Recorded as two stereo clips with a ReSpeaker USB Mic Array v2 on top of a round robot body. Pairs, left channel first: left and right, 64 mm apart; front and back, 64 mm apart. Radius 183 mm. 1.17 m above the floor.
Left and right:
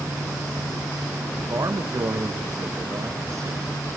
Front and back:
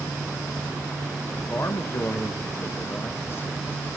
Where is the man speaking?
55° right, 1.8 m.